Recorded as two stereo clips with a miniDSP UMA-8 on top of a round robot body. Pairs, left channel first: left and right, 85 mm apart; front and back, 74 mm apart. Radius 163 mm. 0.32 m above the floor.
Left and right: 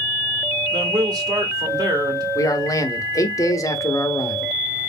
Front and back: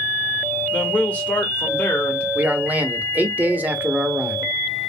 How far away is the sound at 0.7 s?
About 2 m.